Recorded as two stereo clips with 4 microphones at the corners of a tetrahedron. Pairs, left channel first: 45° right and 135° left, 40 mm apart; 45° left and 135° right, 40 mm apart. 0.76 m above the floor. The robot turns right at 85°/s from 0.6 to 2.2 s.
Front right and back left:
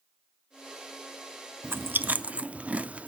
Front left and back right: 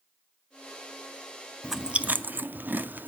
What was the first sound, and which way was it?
Chewing, 140° left.